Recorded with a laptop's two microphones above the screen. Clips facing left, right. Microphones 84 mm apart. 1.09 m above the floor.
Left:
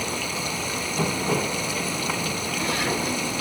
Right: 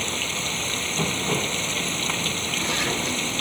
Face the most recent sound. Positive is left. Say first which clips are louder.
# left 1 dB
turn(degrees=10)  # may be behind; listen again after turning